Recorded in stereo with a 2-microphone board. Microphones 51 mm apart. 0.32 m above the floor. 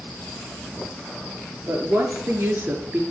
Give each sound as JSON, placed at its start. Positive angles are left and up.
{"t": 1.7, "sound": "a woman speaking", "side_deg": -60, "distance_m": 4.5}